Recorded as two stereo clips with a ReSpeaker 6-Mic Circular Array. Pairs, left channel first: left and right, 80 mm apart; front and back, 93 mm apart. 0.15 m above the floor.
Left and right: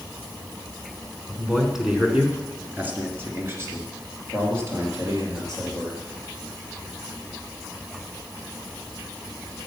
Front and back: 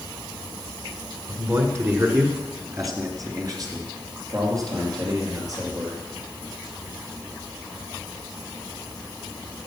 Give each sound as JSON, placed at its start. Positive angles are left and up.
{"t": 1.3, "sound": "a man speaking", "azimuth_deg": 170, "distance_m": 1.9}